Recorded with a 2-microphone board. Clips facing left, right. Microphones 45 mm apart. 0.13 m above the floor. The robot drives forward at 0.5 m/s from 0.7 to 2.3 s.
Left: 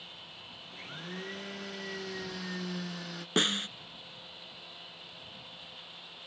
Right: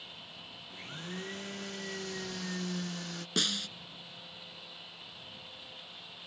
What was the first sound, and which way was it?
A blender, 5° left (ahead or behind).